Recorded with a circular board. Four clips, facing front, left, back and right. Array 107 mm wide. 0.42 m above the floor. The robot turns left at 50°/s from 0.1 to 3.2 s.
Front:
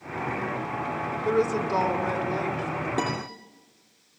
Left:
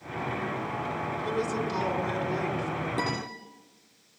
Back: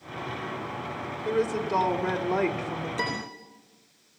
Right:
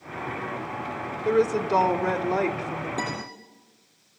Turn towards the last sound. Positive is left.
turn(degrees=-5)